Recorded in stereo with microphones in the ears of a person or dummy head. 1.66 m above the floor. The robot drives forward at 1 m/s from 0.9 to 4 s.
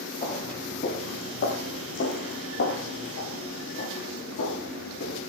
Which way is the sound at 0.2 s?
35° left (ahead or behind).